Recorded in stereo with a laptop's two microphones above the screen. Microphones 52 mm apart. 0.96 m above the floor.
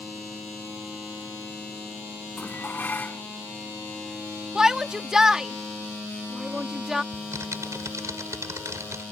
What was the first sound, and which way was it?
Dishes clattering, 35° left (ahead or behind).